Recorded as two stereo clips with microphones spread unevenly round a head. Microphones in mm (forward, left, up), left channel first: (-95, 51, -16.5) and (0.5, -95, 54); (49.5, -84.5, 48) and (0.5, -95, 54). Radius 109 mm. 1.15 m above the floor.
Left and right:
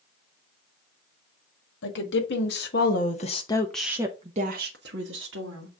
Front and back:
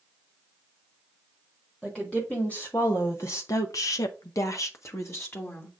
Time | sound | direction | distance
1.8 | a woman speaking | 95° left | 1.6 m